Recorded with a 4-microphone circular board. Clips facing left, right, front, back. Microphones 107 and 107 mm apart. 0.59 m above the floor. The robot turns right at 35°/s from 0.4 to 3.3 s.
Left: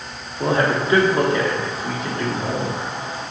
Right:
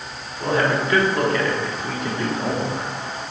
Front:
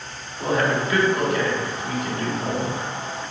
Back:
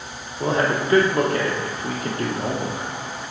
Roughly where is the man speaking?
Behind left.